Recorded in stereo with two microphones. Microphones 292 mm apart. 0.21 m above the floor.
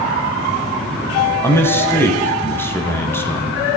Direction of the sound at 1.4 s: 10° left (ahead or behind).